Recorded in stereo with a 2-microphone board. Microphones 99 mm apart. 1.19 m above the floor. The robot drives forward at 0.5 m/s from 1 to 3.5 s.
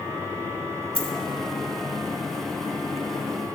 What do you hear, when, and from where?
0.9 s a dropped coin: 15° left (ahead or behind), 1.4 m